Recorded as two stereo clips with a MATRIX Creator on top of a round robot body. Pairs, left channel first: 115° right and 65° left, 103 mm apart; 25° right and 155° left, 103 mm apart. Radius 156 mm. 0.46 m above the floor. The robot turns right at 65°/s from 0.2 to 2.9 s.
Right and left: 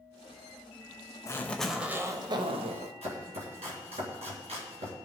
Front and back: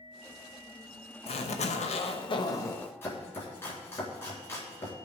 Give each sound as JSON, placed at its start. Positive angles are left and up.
{"t": 1.3, "sound": "a zipper", "azimuth_deg": -50, "distance_m": 0.9}
{"t": 3.0, "sound": "chopping", "azimuth_deg": 45, "distance_m": 3.5}